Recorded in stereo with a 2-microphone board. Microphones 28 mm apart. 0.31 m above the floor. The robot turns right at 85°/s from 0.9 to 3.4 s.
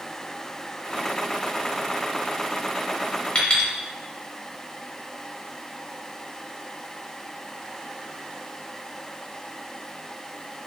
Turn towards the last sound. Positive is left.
turn(degrees=35)  # may be behind; listen again after turning